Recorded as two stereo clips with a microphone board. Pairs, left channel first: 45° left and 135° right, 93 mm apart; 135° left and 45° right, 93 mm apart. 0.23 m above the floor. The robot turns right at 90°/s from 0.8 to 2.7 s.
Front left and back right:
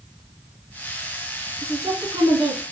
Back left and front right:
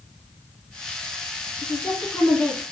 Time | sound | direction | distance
1.6 | a woman speaking | 145° left | 2 m